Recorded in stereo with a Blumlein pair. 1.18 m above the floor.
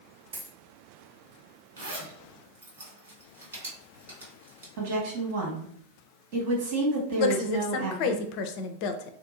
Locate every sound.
0.3 s a dropped coin: 65° right, 1.5 m
1.8 s a zipper: 65° right, 2 m
4.8 s a woman speaking: 50° right, 1.4 m
7.2 s a woman speaking: 45° left, 0.5 m